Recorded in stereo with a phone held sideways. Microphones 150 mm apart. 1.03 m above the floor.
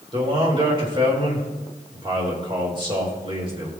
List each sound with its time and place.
0.1 s a man speaking: 35° right (ahead or behind), 4 m